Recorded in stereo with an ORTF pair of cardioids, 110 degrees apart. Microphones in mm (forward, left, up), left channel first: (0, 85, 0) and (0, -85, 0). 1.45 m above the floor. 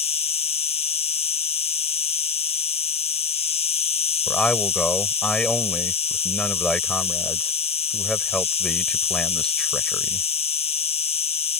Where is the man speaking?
5° left.